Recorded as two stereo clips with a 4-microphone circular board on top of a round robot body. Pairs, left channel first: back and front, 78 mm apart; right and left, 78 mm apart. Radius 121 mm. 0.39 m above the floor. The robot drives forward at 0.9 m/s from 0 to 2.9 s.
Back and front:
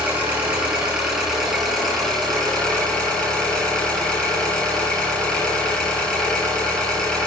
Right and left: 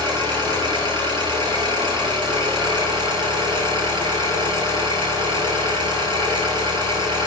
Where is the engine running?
70° left, 5 m; by 7.3 s 100° left, 5 m.